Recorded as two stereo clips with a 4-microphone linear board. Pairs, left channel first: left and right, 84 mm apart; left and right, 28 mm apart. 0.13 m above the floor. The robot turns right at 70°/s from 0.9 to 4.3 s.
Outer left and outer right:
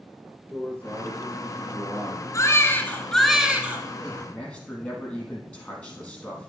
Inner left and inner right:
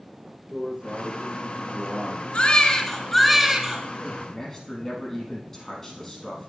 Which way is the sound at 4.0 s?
Centre (ahead or behind).